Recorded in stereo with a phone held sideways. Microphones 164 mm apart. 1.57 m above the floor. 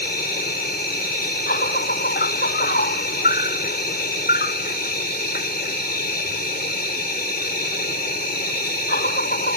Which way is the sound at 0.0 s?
80° left.